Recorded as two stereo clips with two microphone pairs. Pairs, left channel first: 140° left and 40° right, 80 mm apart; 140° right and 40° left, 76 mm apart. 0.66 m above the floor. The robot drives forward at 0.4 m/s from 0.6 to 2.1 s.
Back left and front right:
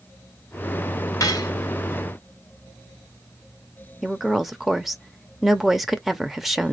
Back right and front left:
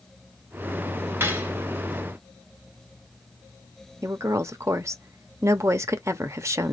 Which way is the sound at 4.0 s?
50° left.